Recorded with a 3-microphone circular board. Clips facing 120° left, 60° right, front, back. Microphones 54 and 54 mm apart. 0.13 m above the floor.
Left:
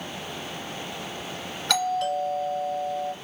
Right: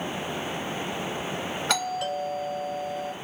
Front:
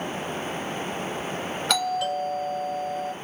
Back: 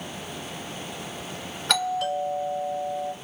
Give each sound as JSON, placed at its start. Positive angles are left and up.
{"t": 1.7, "sound": "a doorbell", "azimuth_deg": -85, "distance_m": 1.5}